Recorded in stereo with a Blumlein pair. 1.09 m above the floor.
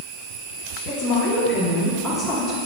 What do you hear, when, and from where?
0.9 s a woman speaking: 35° left, 1.8 m; by 2.6 s straight ahead, 2 m